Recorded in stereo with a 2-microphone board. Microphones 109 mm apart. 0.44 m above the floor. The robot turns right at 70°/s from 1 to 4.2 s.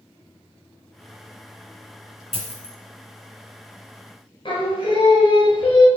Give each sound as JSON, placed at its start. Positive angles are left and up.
{"t": 2.3, "sound": "a dropped coin", "side_deg": 65, "distance_m": 2.5}
{"t": 4.5, "sound": "singing", "side_deg": 50, "distance_m": 1.5}